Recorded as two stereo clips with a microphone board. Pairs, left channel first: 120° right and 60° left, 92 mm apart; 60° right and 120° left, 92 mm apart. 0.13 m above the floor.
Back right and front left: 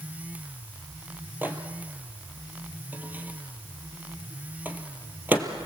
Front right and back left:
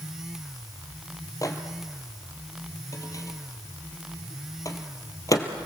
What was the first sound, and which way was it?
A microwave, 10° right.